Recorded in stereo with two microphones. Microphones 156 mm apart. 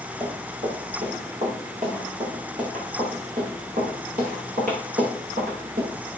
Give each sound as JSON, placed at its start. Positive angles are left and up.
{"t": 0.2, "sound": "running footsteps", "side_deg": -45, "distance_m": 6.5}